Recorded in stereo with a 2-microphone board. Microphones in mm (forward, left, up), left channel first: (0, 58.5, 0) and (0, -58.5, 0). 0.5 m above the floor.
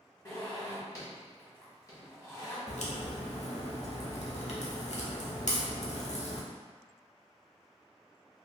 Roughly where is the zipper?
Left.